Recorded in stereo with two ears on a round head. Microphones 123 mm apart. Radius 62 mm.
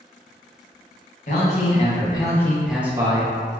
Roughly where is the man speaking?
Left.